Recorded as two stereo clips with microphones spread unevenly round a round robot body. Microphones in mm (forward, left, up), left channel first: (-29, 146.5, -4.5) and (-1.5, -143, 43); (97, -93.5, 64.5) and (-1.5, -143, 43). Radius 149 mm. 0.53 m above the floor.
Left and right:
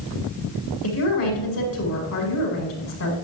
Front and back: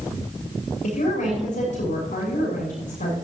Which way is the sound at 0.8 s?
50° left.